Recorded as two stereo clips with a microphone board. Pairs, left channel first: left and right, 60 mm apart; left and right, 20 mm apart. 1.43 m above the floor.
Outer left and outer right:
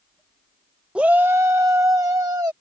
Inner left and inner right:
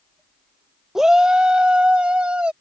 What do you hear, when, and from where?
0.9 s a shout: 20° right (ahead or behind); by 2.5 s 75° right (ahead or behind)